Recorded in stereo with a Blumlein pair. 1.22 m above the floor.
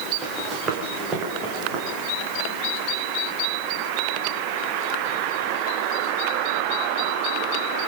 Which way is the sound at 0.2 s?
20° right.